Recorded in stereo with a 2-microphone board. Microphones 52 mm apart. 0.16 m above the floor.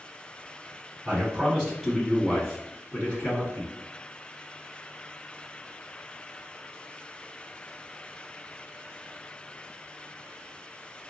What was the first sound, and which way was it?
A man speaking, 20° right (ahead or behind).